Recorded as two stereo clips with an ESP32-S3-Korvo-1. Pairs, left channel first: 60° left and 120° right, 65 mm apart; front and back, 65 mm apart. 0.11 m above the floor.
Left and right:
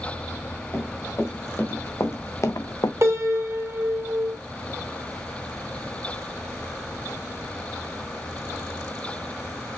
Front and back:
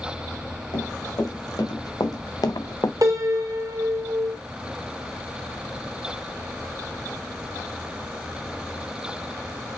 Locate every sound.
0.7 s running footsteps: 5° left, 3.5 m; by 2.9 s 35° left, 0.6 m
3.0 s a piano: 160° right, 2 m